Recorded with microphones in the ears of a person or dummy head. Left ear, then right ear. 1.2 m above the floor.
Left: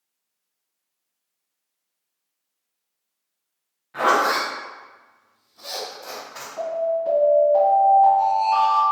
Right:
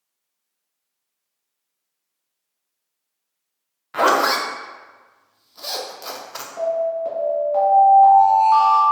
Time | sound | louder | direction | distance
3.9 | a zipper | right 2 dB | 55° right (ahead or behind) | 0.6 m
6.6 | an alarm | right 2 dB | 30° right (ahead or behind) | 1.3 m